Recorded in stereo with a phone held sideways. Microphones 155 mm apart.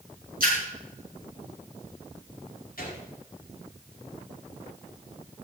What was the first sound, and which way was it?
A splash, 75° right (ahead or behind).